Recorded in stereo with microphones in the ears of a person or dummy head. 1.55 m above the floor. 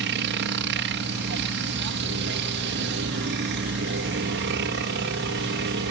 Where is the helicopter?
60° right (ahead or behind).